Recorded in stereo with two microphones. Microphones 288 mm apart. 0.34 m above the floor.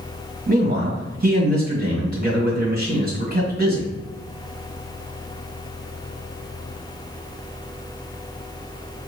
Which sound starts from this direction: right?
A man speaking, at 0.5 s.